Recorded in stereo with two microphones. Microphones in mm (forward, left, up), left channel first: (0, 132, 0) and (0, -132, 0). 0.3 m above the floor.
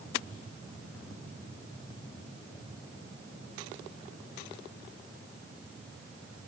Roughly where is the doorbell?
I don't hear a doorbell.